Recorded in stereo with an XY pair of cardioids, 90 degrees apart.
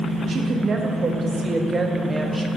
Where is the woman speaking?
60° right, 1.6 m; by 2.5 s straight ahead, 1.0 m.